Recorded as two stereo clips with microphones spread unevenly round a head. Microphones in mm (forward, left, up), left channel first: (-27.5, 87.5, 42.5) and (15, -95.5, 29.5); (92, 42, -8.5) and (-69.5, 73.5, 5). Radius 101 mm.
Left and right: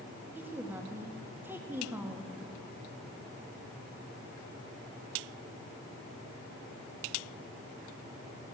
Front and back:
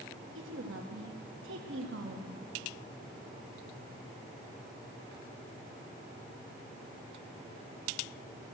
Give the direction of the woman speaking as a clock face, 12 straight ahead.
5 o'clock.